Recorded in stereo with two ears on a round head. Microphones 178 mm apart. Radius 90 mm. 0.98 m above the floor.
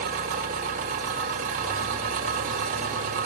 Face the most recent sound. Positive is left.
turn(degrees=-45)  # may be behind; listen again after turning